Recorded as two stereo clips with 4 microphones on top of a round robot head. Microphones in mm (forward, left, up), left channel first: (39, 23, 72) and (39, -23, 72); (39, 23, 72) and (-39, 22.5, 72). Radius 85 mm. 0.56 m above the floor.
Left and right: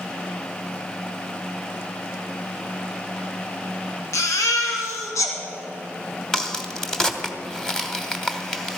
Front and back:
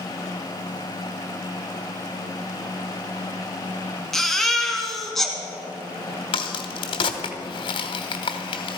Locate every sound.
4.1 s a baby crying: 85° left, 2.0 m
6.3 s a crack: 10° left, 1.2 m